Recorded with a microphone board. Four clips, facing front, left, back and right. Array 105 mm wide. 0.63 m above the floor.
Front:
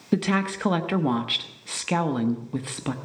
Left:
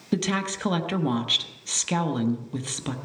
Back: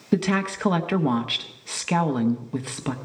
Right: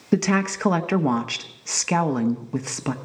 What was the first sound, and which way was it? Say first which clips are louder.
A woman speaking: right 5 dB, back 1 dB; 95° right.